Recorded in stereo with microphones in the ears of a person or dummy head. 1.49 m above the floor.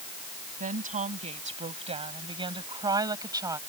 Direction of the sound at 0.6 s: 45° right (ahead or behind).